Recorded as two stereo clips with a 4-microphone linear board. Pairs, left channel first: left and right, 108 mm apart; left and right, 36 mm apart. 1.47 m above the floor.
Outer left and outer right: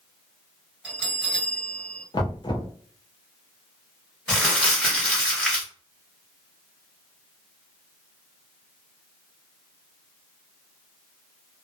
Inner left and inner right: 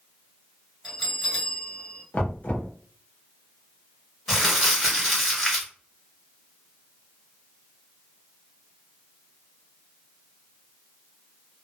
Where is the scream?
I don't hear a scream.